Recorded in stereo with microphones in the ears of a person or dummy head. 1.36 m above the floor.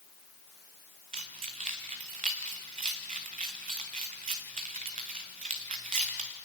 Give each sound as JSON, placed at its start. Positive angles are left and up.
{"t": 1.1, "sound": "keys jangling", "side_deg": -40, "distance_m": 1.2}